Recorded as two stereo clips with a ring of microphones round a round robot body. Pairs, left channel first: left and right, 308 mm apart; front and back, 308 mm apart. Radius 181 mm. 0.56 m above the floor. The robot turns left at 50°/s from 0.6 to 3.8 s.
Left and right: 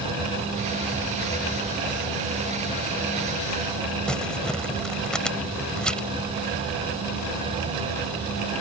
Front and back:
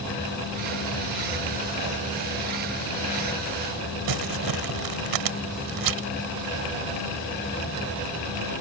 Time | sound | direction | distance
4.1 | crumpling | straight behind | ?